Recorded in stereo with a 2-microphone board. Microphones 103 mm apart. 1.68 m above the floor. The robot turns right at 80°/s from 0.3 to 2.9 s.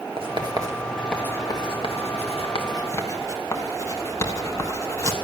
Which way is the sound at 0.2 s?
60° right (ahead or behind).